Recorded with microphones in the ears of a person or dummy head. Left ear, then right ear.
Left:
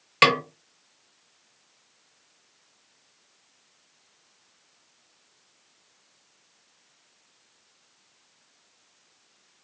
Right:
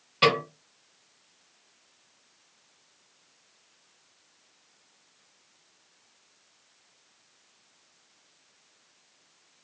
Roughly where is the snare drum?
Left.